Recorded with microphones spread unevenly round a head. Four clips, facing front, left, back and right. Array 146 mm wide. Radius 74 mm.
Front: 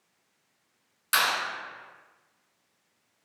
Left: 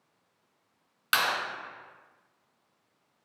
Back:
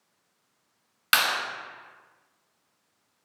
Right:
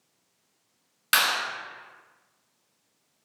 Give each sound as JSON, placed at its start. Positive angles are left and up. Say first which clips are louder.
{"t": 1.1, "sound": "a clap", "louder": "right 2 dB, back 1 dB", "azimuth_deg": -160, "distance_m": 1.6}